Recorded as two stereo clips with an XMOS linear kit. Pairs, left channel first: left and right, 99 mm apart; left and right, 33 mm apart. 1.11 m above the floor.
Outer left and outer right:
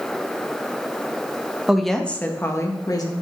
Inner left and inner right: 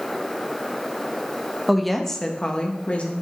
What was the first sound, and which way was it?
A woman speaking, 5° right (ahead or behind).